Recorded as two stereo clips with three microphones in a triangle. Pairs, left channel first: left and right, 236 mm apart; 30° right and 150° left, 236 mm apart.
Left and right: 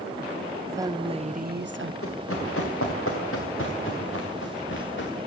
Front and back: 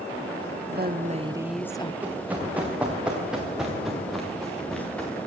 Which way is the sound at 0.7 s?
165° right.